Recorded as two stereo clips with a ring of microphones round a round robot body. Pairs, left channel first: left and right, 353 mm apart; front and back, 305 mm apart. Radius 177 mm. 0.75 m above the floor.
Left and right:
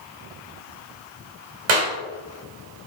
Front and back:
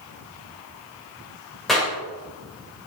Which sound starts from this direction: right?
A clap, at 1.7 s.